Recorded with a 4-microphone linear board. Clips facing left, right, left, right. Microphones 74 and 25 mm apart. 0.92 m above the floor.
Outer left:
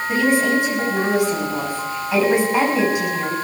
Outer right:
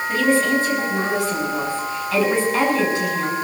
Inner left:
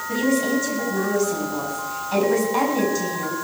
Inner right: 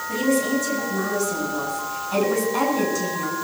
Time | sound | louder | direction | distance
0.1 | a woman speaking | outer left 1 dB, inner left 1 dB | 15° left (ahead or behind) | 6.5 m